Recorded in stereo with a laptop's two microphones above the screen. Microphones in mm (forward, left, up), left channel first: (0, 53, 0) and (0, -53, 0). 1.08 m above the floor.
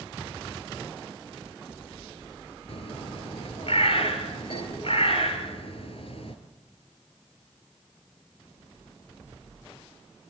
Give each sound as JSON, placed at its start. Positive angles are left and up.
{"t": 2.7, "sound": "a bird", "side_deg": 60, "distance_m": 3.0}